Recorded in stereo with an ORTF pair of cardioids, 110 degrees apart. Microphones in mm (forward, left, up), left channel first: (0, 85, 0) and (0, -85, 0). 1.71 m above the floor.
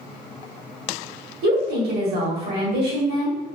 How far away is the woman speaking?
About 1.6 m.